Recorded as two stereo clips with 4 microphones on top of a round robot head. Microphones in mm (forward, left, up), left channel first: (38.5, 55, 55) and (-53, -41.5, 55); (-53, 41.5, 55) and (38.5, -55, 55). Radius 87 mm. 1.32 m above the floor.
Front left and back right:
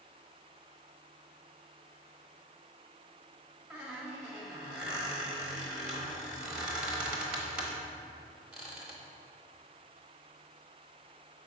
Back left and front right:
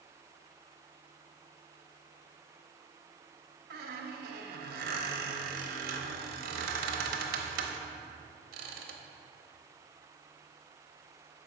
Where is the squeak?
50° right, 0.8 m.